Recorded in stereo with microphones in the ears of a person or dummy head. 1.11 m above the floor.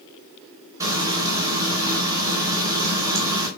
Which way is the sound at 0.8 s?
20° right (ahead or behind).